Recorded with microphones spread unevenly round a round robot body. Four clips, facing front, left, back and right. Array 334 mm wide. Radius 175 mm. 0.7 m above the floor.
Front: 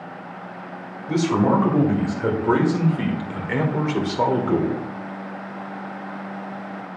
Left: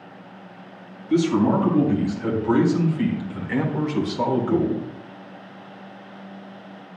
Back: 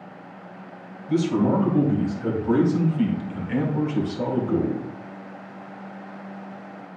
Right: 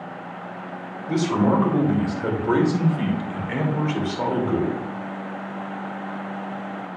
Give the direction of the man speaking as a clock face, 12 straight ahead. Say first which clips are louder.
Left 2 dB, front 2 dB; 1 o'clock.